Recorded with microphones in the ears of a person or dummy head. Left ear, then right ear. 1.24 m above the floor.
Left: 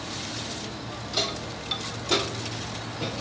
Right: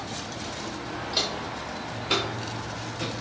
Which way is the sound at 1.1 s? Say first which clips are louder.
Even; 25° right (ahead or behind).